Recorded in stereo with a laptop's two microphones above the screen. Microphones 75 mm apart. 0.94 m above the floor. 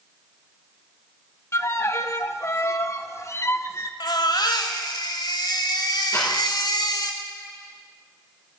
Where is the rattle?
35° left (ahead or behind), 6.5 m.